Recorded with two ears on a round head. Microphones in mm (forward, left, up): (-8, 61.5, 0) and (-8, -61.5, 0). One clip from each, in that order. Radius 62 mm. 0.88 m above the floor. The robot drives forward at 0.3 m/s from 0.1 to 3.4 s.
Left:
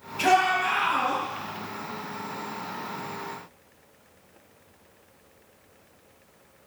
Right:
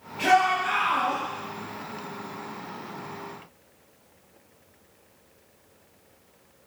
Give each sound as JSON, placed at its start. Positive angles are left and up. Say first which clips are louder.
{"t": 0.2, "sound": "a shout", "louder": "even", "side_deg": 75, "distance_m": 4.0}